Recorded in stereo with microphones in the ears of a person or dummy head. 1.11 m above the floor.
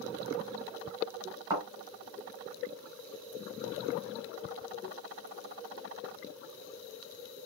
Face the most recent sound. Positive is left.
turn(degrees=-25)  # may be behind; listen again after turning